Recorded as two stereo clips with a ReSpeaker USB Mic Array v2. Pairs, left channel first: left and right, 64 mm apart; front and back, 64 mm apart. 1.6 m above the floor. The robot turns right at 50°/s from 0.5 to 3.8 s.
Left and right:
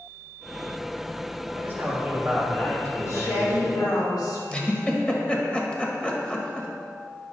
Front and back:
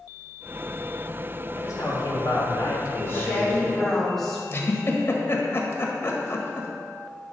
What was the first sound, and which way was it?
A man speaking, 40° right.